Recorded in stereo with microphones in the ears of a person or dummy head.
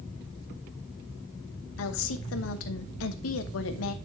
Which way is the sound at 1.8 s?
75° left (ahead or behind).